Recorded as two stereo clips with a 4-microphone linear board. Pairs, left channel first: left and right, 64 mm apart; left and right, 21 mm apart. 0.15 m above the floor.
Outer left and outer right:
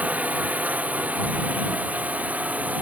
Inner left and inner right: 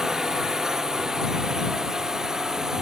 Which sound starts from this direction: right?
A drone, at 0.0 s.